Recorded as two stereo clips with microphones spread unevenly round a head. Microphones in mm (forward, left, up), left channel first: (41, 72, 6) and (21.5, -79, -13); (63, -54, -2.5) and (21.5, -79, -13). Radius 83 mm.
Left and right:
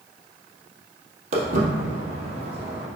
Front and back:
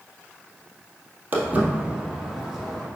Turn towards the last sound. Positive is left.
turn(degrees=-45)